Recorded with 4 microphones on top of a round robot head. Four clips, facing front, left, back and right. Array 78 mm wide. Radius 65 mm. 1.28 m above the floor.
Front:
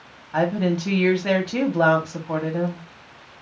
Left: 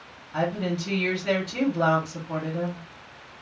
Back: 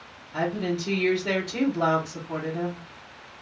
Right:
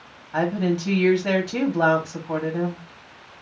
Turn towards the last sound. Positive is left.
turn(degrees=-30)